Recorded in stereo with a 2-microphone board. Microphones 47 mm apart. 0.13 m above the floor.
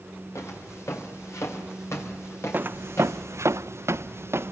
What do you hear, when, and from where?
0.3 s footsteps: 90° left, 5.5 m; by 3.2 s 65° left (ahead or behind), 4.5 m
2.5 s footsteps: 40° right (ahead or behind), 0.6 m; by 4.5 s 60° right (ahead or behind), 1.1 m